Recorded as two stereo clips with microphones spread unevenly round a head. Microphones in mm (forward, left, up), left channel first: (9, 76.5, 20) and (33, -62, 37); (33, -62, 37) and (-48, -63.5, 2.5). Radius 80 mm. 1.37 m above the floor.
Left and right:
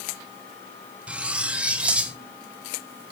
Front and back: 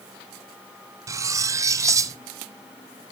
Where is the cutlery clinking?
125° right, 0.5 m.